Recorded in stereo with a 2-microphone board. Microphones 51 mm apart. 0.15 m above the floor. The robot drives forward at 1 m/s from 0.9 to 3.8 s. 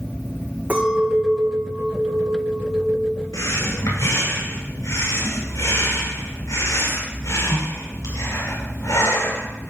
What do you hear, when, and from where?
0.7 s a clink: 30° right (ahead or behind), 6 m; by 3.2 s 45° right (ahead or behind), 4 m
3.3 s breathing: 80° left, 6.5 m; by 9.7 s 75° left (ahead or behind), 6.5 m